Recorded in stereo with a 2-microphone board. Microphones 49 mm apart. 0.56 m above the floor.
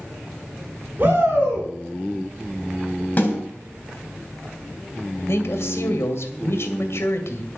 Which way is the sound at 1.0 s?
40° right (ahead or behind).